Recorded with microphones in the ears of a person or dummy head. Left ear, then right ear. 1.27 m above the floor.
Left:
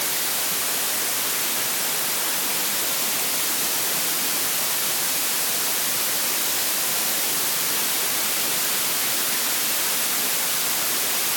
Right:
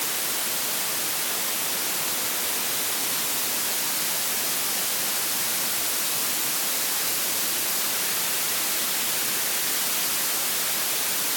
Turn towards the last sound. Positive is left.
No sound to turn to.